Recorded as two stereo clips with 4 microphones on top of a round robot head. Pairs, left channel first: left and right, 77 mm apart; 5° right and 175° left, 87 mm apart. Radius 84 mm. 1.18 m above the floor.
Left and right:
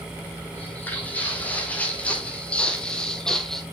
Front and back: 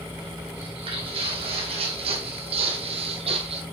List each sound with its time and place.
0.5 s footsteps: 160° left, 3.5 m; by 3.6 s 175° left, 1.8 m